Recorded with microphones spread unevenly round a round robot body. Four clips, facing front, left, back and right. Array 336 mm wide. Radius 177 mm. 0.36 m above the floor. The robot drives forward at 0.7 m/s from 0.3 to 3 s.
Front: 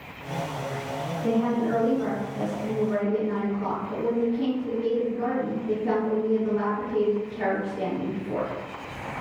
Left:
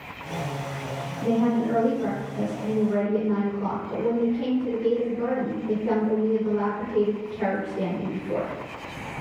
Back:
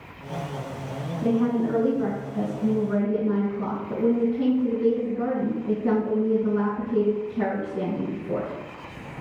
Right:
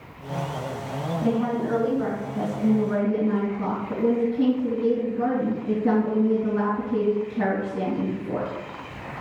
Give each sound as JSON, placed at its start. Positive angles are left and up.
{"t": 1.2, "sound": "a woman speaking", "azimuth_deg": -140, "distance_m": 2.5}